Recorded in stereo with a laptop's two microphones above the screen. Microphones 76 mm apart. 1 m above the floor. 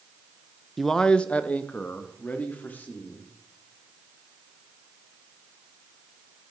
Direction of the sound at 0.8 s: Centre (ahead or behind).